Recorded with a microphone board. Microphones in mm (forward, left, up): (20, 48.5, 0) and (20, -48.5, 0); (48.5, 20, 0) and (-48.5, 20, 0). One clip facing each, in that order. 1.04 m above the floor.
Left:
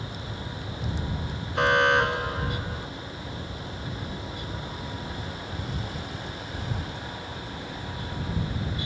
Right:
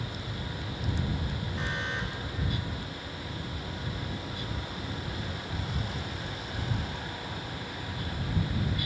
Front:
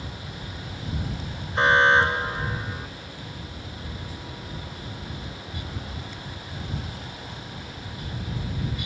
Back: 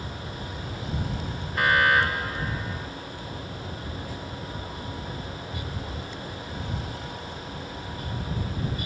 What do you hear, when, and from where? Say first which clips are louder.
1.6 s an alarm: left 17 dB, front 3 dB; 65° left